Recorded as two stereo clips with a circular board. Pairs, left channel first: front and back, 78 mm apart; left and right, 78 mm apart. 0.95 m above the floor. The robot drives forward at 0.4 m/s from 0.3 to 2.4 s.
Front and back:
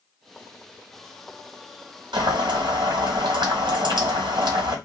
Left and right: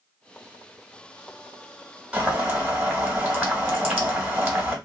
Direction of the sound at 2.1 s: 165° right.